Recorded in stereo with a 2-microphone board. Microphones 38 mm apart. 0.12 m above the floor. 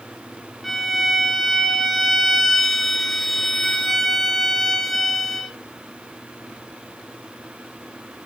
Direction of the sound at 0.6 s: 5° left (ahead or behind).